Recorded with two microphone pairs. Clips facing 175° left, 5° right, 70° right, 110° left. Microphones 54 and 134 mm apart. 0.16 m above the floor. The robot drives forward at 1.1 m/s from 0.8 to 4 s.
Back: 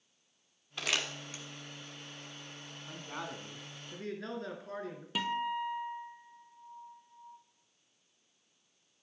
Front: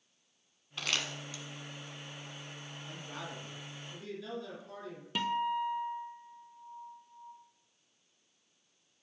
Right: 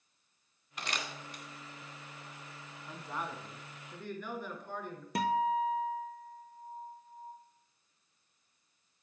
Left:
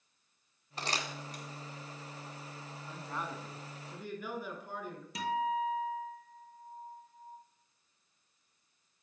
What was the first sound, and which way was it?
Crumpling, 90° left.